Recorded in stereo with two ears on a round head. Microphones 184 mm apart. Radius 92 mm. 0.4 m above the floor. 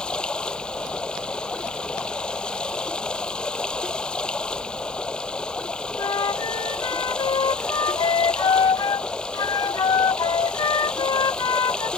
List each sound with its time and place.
0.0 s running water: 5° left (ahead or behind)
6.0 s a flute: 20° left (ahead or behind)